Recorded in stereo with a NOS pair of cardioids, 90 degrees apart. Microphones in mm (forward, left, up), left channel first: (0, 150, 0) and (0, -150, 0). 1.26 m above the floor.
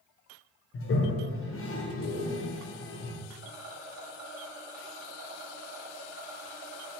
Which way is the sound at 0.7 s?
50° left.